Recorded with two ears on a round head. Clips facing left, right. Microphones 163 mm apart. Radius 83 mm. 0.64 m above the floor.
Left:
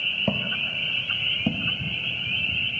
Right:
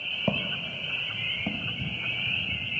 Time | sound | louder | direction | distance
0.3 | footsteps | left 2 dB | 5° left (ahead or behind) | 0.6 m